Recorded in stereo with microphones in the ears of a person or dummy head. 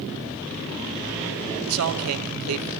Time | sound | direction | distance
1.7 | a man speaking | 85° right | 1.1 m